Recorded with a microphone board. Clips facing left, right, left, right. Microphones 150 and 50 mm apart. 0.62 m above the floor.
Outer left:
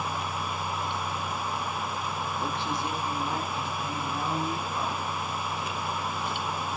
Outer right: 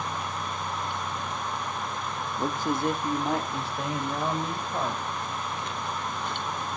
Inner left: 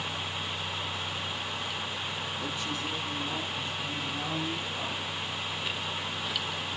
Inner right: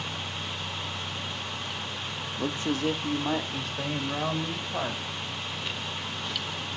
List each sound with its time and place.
2.4 s a man speaking: 30° right (ahead or behind), 0.8 m; by 5.0 s 75° right (ahead or behind), 3 m